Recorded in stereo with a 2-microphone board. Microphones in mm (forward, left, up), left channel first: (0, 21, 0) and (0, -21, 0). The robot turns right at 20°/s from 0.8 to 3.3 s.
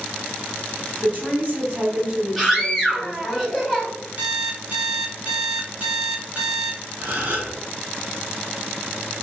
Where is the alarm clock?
35° right (ahead or behind), 1.3 m.